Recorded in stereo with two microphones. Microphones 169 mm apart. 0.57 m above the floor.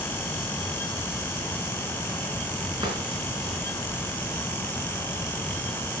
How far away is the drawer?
About 4.5 m.